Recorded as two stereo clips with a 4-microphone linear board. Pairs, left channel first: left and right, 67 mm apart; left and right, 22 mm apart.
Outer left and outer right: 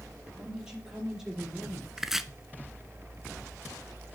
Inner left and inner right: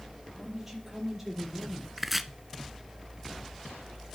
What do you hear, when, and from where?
0.4 s a woman speaking: 15° right (ahead or behind), 5 m; by 1.9 s 5° right (ahead or behind), 5 m
2.0 s chopping: 5° right (ahead or behind), 0.5 m